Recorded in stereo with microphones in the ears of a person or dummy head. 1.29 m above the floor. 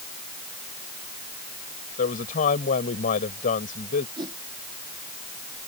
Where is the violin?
I don't hear a violin.